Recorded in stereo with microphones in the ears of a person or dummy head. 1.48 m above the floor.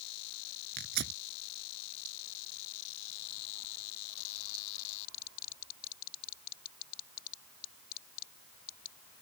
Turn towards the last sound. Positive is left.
turn(degrees=-65)  # may be behind; listen again after turning